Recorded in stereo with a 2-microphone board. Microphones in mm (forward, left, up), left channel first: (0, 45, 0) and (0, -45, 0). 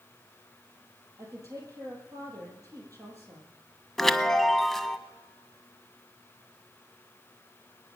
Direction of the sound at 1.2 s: 40° right (ahead or behind).